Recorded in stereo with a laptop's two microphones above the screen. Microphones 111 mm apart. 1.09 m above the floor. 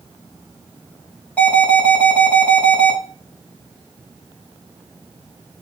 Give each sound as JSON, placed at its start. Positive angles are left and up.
{"t": 1.4, "sound": "an alarm", "side_deg": 15, "distance_m": 5.5}